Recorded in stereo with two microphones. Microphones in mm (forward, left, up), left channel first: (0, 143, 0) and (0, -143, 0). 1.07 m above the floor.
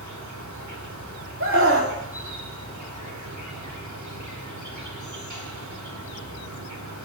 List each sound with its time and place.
0.0 s an insect: 80° right, 2 m
1.4 s a scream: 45° right (ahead or behind), 2 m